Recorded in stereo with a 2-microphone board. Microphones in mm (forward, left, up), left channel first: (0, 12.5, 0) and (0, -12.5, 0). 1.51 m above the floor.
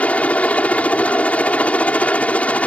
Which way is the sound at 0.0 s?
65° left (ahead or behind).